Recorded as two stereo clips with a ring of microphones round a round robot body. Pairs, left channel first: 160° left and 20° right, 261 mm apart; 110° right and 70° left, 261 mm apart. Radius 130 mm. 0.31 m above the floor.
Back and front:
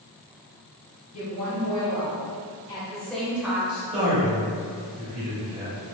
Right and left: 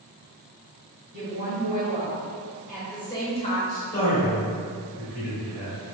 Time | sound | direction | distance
1.1 | a woman speaking | 105° left | 1.6 m
3.7 | a man speaking | 80° right | 1.4 m